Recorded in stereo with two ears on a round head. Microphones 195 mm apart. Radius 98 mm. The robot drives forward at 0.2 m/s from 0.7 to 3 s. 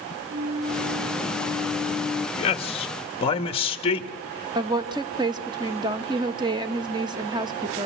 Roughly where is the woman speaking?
Right.